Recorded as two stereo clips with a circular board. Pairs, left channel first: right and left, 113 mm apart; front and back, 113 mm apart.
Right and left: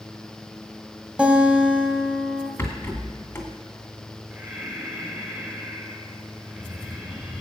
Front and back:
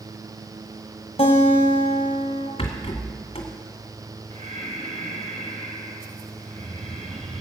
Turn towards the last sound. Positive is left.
turn(degrees=170)